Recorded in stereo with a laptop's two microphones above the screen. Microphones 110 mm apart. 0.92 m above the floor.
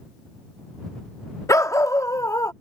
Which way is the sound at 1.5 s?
30° left (ahead or behind).